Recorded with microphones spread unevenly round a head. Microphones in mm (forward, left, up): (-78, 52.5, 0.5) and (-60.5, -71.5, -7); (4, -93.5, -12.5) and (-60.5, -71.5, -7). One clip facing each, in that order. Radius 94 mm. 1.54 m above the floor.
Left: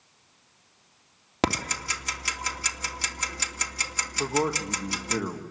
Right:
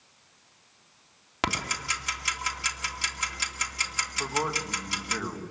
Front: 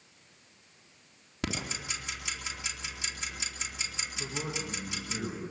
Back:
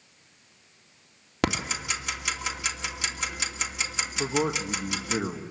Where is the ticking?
140° left, 2.5 m.